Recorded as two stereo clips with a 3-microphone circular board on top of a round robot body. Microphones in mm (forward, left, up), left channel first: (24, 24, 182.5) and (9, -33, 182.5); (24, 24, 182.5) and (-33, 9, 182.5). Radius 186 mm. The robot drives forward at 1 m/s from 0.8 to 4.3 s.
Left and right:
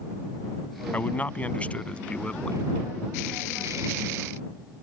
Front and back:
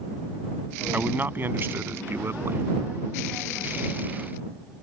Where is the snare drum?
No snare drum in this recording.